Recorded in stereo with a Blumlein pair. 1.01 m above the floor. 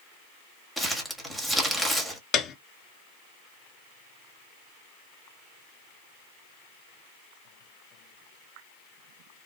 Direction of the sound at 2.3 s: 30° left.